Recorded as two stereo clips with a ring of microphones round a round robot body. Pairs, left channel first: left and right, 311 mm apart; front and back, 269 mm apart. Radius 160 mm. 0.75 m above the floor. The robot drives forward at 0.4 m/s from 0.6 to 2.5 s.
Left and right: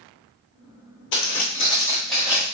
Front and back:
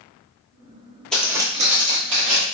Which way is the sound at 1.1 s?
85° left.